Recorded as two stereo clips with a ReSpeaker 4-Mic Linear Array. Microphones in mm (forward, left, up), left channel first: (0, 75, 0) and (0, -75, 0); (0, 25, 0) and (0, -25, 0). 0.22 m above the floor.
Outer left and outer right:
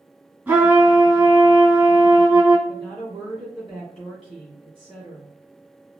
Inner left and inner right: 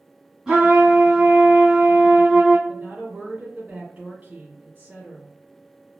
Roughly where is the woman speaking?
Right.